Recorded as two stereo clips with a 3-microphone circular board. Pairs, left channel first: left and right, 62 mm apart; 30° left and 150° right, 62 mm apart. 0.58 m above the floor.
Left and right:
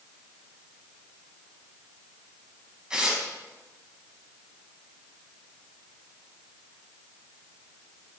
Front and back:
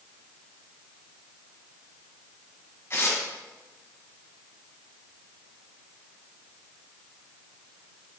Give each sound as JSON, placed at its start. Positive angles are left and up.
{"t": 2.9, "sound": "tearing paper", "azimuth_deg": -15, "distance_m": 1.6}